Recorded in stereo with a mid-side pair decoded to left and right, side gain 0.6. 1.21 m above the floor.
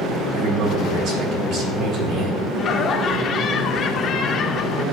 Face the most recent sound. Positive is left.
turn(degrees=45)